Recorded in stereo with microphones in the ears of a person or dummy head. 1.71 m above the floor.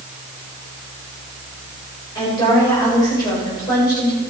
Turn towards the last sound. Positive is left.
turn(degrees=25)  # may be behind; listen again after turning